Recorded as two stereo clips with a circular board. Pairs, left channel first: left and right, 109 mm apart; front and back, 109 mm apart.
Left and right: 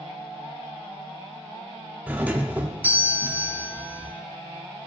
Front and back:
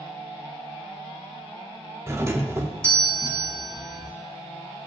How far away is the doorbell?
About 0.7 m.